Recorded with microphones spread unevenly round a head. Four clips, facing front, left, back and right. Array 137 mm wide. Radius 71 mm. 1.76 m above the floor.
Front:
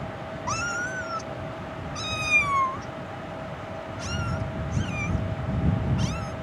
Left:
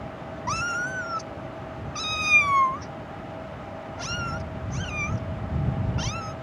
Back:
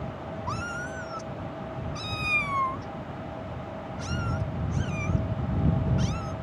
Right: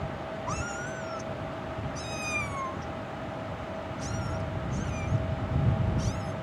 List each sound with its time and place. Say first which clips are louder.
0.5 s a cat meowing: left 10 dB, front 5 dB; 70° left; by 6.3 s 65° left